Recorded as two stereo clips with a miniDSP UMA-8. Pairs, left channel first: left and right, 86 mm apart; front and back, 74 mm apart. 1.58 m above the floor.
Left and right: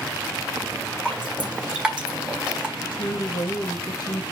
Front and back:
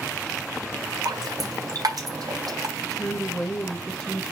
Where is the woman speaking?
70° left, 2.5 m.